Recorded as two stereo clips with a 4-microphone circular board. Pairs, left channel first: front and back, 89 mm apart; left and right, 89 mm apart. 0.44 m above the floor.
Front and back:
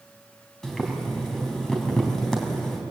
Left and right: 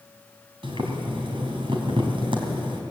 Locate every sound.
0.6 s boiling: 85° right, 3.5 m